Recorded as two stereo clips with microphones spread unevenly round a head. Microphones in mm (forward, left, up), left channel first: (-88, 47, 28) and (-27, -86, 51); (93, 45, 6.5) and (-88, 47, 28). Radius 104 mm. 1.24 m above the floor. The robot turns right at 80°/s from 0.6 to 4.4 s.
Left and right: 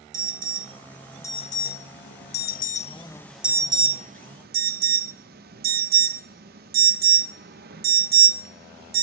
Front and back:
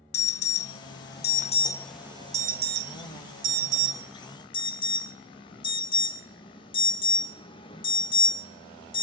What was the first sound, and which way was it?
An alarm, 15° right.